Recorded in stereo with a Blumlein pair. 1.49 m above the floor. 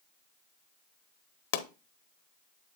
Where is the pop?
55° left, 0.8 m.